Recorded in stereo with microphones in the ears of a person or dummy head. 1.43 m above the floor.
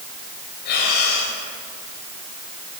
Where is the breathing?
60° left (ahead or behind), 4.5 m.